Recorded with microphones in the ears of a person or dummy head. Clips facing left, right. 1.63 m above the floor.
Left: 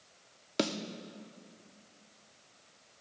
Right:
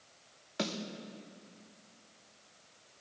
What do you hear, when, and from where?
0.6 s a snare drum: 45° left (ahead or behind), 0.6 m